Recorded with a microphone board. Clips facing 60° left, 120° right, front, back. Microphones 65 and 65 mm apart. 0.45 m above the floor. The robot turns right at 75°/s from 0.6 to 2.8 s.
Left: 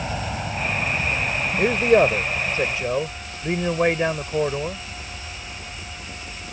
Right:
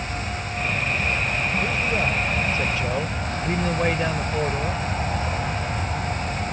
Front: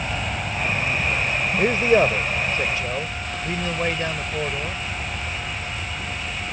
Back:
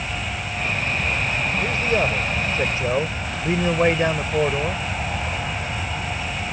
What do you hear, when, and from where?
0.0 s an aircraft: 70° left; by 6.5 s 125° right
1.6 s a man speaking: 35° left; by 4.8 s 130° left